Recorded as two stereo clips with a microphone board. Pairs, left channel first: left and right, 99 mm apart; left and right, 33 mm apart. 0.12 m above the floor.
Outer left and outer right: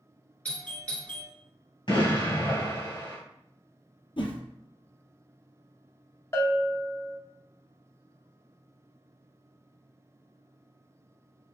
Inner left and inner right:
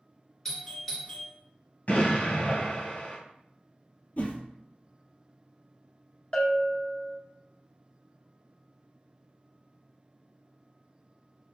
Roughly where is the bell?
Left.